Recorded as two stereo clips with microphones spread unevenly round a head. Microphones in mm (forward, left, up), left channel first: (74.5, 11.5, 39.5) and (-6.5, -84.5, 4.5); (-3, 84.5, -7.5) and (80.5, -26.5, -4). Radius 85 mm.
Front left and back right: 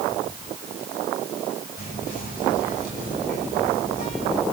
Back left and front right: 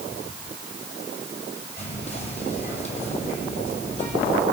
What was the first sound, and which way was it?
Whispering, 90° left.